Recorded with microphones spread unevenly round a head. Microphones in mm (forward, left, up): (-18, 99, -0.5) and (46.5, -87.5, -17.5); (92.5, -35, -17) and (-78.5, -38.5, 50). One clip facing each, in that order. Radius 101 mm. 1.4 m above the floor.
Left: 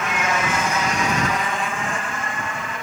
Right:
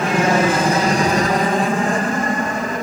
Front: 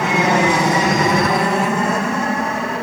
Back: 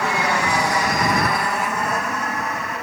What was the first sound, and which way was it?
An aircraft, 30° right.